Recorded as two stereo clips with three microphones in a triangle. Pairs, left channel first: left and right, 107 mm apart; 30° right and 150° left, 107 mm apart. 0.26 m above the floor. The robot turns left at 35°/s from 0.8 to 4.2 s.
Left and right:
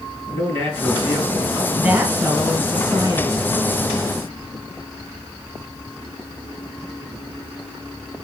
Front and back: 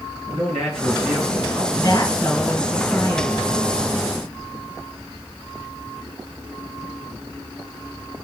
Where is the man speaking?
125° right, 3.5 m; by 1.7 s 155° right, 3.5 m.